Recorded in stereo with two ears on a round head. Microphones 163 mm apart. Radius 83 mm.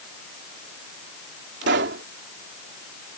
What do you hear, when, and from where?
1.6 s a pop: 70° right (ahead or behind)